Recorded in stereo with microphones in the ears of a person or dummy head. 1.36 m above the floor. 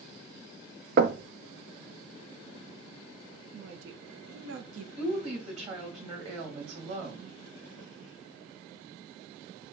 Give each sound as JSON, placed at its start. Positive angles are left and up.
{"t": 1.0, "sound": "knocking", "side_deg": -55, "distance_m": 0.7}
{"t": 3.5, "sound": "a woman speaking", "side_deg": -80, "distance_m": 0.9}
{"t": 5.0, "sound": "a woman speaking", "side_deg": -40, "distance_m": 2.0}